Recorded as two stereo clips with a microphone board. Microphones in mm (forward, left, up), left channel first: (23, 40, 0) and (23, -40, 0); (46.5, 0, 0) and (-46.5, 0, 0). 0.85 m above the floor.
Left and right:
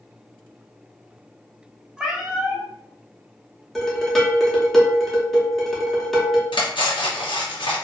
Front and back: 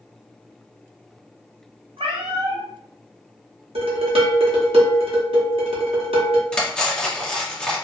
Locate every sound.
2.0 s a cat meowing: 170° right, 0.7 m
3.8 s dishes clattering: 175° left, 0.8 m
6.5 s cutlery clinking: 80° left, 0.7 m